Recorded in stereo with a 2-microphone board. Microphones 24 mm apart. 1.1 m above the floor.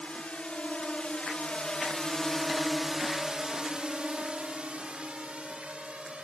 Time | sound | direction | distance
0.0 | a drone | 60° left (ahead or behind) | ?